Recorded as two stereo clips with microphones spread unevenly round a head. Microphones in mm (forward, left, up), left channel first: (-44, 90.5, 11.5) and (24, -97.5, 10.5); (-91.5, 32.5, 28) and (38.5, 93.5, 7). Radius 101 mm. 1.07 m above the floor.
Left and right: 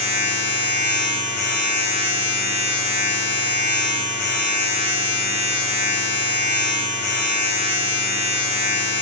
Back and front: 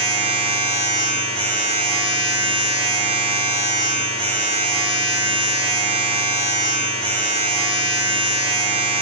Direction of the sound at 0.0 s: 80° left.